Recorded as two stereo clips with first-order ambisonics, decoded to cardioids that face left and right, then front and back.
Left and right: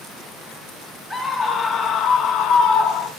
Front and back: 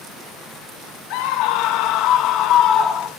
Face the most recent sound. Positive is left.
turn(degrees=55)